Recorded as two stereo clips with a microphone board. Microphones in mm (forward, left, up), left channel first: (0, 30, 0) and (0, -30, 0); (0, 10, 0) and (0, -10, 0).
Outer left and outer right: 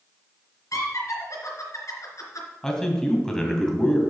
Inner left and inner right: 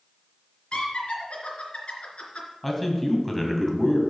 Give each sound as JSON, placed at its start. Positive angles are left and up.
{"t": 0.7, "sound": "laughter", "side_deg": 60, "distance_m": 3.0}
{"t": 2.6, "sound": "a man speaking", "side_deg": 10, "distance_m": 1.8}